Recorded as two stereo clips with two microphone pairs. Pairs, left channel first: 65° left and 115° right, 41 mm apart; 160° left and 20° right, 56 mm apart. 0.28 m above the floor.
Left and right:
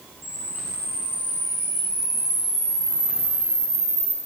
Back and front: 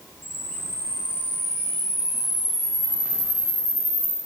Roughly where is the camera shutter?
Left.